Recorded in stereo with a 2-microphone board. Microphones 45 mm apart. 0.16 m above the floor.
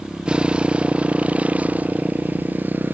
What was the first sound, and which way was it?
A motorcycle, 20° right (ahead or behind).